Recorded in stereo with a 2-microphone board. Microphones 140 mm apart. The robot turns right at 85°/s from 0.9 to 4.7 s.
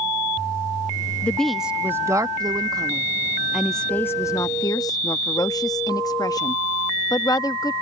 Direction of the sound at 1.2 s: 10° left (ahead or behind).